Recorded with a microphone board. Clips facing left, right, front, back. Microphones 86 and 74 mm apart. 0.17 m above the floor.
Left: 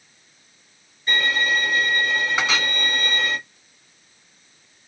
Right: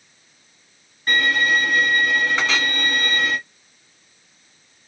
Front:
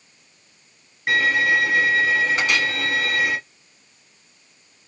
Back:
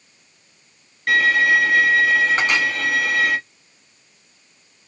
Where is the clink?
155° left, 1.2 m.